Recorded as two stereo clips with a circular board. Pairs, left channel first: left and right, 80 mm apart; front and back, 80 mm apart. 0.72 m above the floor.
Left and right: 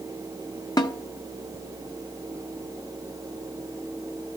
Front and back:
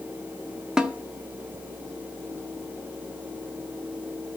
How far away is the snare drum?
About 1.2 m.